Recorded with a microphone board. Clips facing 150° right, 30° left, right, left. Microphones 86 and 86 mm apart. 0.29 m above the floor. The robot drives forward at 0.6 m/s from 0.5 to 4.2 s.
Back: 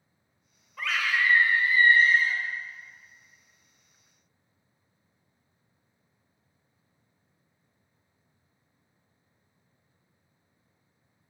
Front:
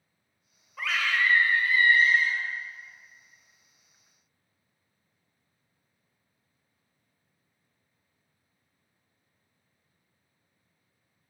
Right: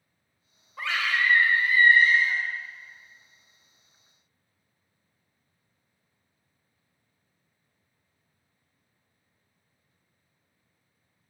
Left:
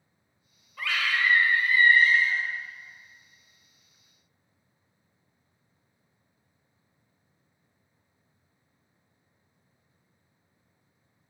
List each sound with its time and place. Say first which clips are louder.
0.8 s a scream: even, right 1 dB; 55° right, 1.0 m; by 2.4 s 145° right, 1.2 m